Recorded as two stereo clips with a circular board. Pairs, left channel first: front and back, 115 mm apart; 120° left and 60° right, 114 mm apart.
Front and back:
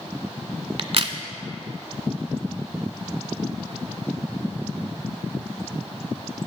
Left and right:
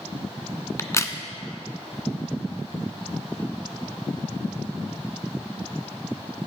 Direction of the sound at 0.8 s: 175° left.